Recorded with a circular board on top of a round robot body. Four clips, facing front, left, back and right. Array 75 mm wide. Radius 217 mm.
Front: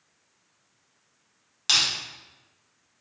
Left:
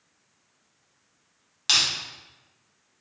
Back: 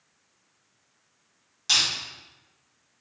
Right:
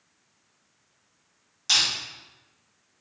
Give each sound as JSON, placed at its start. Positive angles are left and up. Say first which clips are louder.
{"t": 1.7, "sound": "crushing", "louder": "left 1 dB, front 1 dB", "azimuth_deg": 50, "distance_m": 1.8}